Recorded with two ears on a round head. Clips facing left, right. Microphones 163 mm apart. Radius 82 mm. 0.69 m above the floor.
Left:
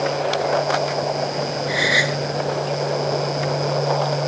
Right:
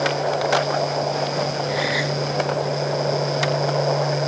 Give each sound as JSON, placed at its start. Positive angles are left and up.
{"t": 1.7, "sound": "a gasp", "side_deg": 70}